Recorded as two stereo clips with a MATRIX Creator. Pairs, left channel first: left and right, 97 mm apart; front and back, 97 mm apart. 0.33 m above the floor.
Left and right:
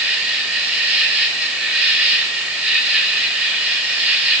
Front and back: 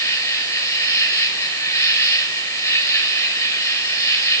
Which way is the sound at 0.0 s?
25° right.